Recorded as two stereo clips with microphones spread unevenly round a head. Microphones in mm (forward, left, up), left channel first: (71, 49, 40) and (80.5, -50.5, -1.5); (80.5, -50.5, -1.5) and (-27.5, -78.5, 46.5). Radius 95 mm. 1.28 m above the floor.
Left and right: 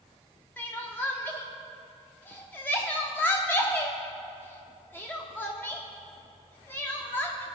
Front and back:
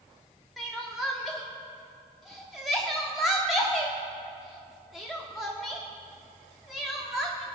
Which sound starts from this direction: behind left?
Crying, at 0.6 s.